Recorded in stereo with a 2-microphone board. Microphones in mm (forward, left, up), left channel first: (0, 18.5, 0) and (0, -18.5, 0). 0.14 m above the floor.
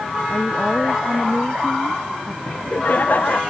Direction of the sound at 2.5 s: 50° left (ahead or behind).